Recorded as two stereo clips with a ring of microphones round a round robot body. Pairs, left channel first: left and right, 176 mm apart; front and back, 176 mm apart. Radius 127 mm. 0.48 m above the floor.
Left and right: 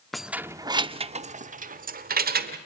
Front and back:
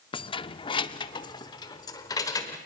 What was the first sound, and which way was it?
Keys jangling, straight ahead.